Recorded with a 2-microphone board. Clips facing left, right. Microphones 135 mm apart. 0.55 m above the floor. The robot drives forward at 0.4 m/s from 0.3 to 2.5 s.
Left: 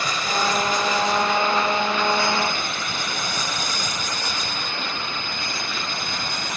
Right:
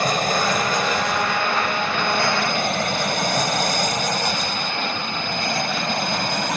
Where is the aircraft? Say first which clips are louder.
Right 4 dB; 50° right (ahead or behind); by 6.6 s 65° right (ahead or behind).